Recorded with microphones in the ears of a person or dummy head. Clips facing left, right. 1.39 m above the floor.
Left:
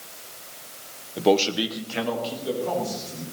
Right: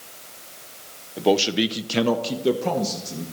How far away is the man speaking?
About 0.8 m.